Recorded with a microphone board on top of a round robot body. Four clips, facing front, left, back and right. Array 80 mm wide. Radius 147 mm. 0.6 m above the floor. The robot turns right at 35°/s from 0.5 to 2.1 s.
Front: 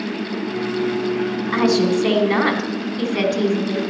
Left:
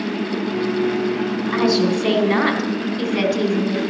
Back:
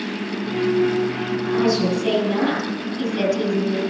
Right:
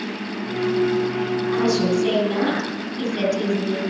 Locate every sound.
1.5 s a woman speaking: 15° left, 3.5 m; by 3.8 s 35° left, 3.5 m